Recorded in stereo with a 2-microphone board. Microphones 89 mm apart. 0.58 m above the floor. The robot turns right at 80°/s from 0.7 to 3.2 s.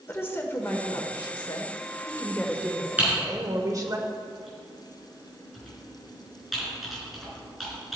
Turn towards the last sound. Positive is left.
turn(degrees=0)  # may be behind; listen again after turning